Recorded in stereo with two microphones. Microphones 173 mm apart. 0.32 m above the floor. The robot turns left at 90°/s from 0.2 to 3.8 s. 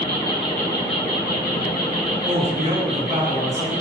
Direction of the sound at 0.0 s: 155° right.